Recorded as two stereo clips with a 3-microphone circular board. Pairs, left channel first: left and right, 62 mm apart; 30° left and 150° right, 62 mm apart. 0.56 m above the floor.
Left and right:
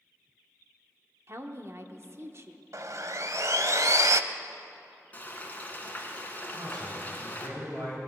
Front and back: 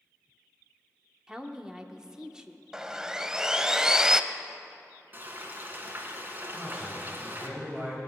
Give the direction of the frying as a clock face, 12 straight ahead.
7 o'clock.